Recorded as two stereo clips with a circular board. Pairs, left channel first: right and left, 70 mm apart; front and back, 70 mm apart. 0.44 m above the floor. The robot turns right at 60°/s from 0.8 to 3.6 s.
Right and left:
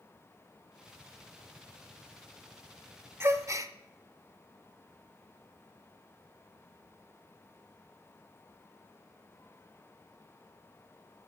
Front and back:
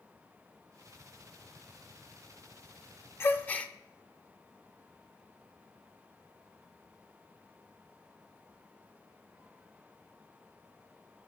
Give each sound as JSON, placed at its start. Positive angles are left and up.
{"t": 3.2, "sound": "a gasp", "azimuth_deg": 45, "distance_m": 0.5}